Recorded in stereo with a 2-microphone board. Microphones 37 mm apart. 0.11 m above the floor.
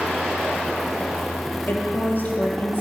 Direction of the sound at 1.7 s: 55° left (ahead or behind).